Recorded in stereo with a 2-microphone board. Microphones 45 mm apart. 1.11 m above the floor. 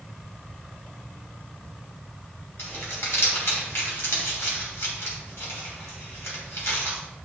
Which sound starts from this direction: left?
Crumpling, at 2.6 s.